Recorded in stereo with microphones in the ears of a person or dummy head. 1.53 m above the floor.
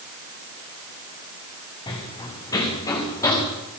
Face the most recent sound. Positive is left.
turn(degrees=20)  # may be behind; listen again after turning